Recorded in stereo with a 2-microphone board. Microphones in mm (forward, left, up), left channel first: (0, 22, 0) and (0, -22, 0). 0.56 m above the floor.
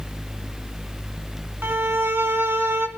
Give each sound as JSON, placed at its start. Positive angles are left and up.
{"t": 1.6, "sound": "a violin", "side_deg": -60, "distance_m": 1.0}